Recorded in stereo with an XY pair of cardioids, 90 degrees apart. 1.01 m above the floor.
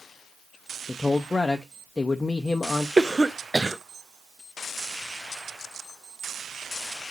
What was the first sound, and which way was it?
A man speaking, 25° left.